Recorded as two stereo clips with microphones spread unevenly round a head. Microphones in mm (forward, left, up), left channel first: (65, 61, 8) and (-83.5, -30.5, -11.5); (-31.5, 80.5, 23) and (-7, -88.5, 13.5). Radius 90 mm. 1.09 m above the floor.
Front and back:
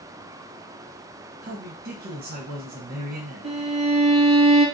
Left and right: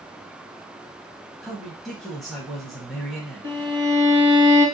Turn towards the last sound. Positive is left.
turn(degrees=-95)